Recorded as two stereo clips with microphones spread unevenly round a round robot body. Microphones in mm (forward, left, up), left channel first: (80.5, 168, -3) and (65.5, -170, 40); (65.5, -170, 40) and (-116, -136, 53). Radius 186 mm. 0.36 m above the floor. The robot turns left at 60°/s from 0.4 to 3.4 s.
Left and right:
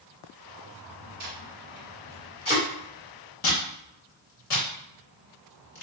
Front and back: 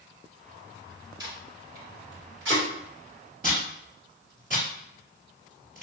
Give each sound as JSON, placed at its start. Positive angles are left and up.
{"t": 1.2, "sound": "tape being pulled", "azimuth_deg": -120, "distance_m": 1.9}